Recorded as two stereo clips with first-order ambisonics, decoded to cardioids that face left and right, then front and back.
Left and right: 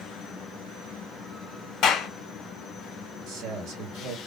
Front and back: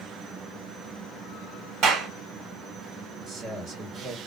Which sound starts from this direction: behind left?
A clap, at 1.8 s.